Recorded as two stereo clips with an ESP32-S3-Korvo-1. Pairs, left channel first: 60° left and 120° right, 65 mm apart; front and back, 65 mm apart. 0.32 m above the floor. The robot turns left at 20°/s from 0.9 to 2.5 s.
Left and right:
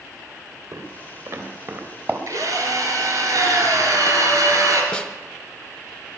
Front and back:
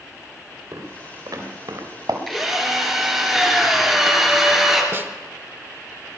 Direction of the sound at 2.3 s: 90° right.